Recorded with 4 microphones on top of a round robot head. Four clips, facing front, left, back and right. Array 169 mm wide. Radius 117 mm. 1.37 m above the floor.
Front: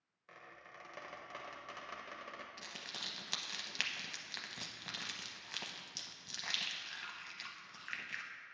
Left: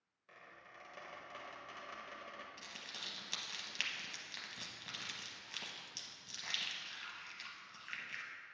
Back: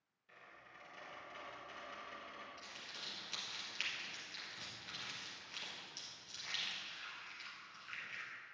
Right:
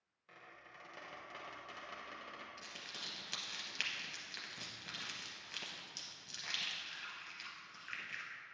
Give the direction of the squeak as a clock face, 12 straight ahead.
12 o'clock.